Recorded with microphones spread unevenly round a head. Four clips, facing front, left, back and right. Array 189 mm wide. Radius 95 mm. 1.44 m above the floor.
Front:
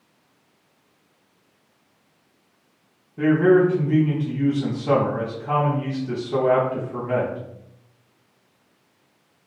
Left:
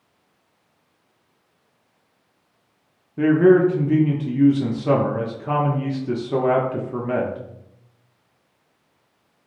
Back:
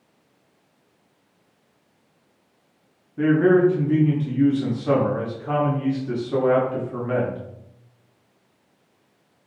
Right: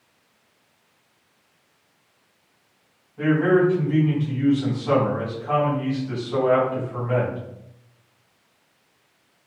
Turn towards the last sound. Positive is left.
turn(degrees=90)